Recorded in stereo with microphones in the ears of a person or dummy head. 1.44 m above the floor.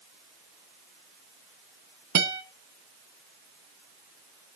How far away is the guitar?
About 1.1 m.